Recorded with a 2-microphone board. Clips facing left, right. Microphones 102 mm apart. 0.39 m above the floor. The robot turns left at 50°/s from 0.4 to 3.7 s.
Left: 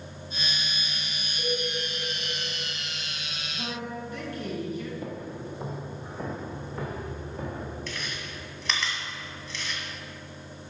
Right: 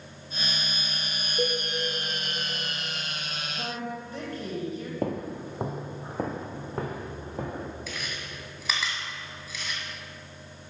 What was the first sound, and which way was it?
A cowbell, 80° right.